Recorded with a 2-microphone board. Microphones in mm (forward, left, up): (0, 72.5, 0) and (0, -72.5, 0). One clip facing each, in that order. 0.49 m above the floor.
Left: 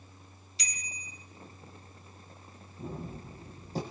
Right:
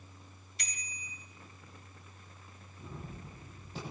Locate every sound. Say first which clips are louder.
0.6 s a bicycle bell: left 3 dB; 55° right (ahead or behind), 3.5 m
2.8 s a gunshot: left 7 dB; 40° left (ahead or behind), 7.5 m